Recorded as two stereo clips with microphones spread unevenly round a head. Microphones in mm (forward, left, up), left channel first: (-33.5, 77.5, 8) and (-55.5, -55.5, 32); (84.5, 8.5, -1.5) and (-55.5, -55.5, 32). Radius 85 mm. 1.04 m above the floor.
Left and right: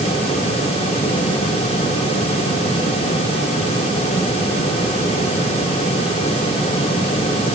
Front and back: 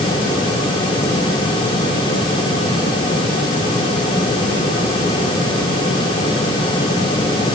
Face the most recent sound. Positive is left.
No sound to turn to.